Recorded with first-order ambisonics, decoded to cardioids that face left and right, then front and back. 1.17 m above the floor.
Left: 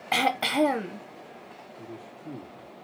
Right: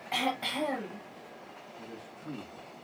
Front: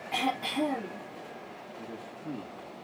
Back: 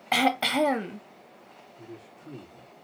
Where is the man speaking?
15° right, 2.5 m.